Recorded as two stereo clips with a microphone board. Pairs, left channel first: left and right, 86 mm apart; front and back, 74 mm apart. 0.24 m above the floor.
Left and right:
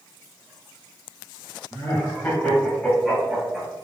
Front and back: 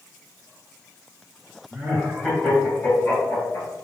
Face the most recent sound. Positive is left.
turn(degrees=-15)